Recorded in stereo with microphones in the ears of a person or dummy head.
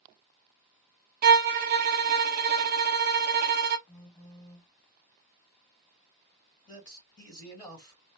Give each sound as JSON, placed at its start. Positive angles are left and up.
{"t": 1.2, "sound": "a violin", "side_deg": -45, "distance_m": 0.5}
{"t": 3.9, "sound": "a phone buzzing", "side_deg": 25, "distance_m": 2.5}
{"t": 6.7, "sound": "a man speaking", "side_deg": 20, "distance_m": 2.5}